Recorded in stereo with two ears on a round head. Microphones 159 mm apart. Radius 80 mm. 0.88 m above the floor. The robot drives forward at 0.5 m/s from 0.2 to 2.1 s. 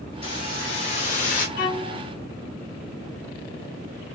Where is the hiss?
30° left (ahead or behind), 1.8 m; by 1.5 s 45° left (ahead or behind), 1.3 m.